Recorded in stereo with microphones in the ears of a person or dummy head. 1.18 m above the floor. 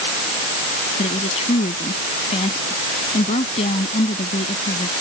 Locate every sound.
1.0 s a woman speaking: 35° left (ahead or behind)